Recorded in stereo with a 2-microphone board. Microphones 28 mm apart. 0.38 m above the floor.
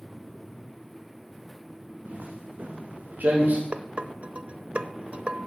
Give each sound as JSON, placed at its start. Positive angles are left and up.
{"t": 2.0, "sound": "footsteps", "side_deg": -80, "distance_m": 4.5}
{"t": 3.7, "sound": "dishes clattering", "side_deg": -50, "distance_m": 0.9}